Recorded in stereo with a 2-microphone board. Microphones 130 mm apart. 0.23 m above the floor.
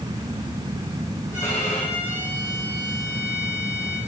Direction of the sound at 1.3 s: 20° left (ahead or behind).